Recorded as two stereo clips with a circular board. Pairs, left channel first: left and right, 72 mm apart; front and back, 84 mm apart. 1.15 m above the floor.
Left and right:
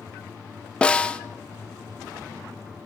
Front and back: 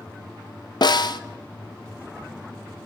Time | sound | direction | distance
0.8 | a snare drum | 15° left | 0.5 m